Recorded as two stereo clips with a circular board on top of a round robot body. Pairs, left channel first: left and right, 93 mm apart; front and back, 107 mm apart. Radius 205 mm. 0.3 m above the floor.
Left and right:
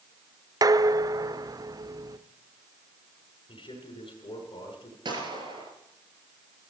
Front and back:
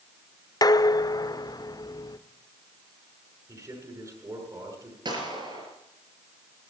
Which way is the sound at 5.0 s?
130° right.